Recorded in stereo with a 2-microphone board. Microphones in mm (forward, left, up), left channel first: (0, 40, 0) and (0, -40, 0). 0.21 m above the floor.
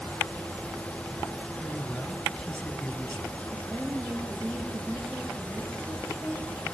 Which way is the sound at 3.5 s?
15° right (ahead or behind).